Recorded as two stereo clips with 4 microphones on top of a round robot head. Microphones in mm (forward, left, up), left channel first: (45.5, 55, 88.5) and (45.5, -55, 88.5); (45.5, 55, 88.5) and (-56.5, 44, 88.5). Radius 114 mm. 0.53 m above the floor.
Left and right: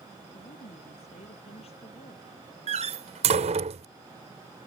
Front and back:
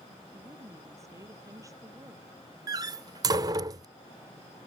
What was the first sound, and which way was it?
A woman speaking, 125° left.